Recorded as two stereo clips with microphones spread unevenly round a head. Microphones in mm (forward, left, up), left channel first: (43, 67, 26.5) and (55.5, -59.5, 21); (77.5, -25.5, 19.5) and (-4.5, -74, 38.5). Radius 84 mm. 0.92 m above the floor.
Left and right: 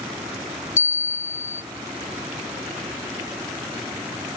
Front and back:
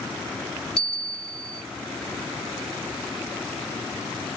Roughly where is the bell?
Behind left.